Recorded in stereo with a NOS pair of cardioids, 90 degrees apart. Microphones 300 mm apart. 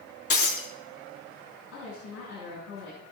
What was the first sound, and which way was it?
Breaking glass, 50° left.